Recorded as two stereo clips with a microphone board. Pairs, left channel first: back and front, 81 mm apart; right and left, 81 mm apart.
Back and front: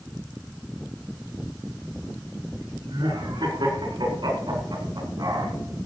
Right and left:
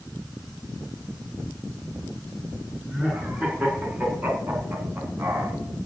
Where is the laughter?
15° left, 5.5 m; by 5.5 s 30° left, 4.5 m.